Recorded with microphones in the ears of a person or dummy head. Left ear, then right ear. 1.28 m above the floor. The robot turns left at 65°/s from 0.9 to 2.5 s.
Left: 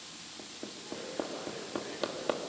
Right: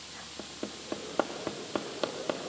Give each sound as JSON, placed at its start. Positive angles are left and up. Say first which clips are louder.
{"t": 0.4, "sound": "hammering", "louder": "right 5 dB", "side_deg": -80, "distance_m": 1.7}